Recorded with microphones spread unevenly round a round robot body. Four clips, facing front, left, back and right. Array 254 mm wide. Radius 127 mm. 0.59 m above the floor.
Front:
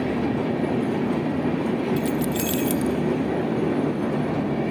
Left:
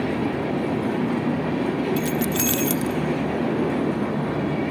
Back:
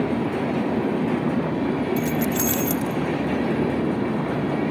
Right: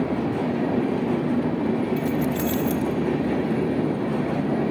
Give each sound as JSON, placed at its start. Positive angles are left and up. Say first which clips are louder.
{"t": 2.0, "sound": "keys jangling", "louder": "even, back 1 dB", "azimuth_deg": 105, "distance_m": 0.9}